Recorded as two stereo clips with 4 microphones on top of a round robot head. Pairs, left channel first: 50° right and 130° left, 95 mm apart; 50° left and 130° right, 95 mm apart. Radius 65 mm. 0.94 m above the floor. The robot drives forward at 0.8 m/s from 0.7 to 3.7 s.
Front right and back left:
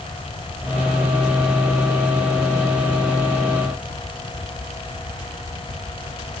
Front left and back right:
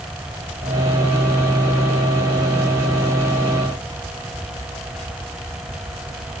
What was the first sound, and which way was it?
Only background noise.